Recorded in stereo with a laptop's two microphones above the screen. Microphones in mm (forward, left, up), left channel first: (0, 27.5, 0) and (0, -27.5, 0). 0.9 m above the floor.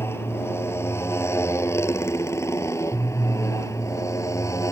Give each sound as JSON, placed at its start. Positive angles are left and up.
{"t": 0.0, "sound": "a motorcycle", "side_deg": 50}